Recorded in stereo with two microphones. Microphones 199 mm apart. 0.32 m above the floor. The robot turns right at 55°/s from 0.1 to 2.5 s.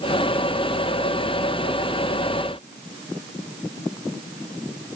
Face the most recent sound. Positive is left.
No sound to turn to.